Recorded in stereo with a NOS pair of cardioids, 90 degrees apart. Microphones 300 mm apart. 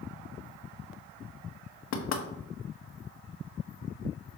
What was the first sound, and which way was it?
Knocking, 60° left.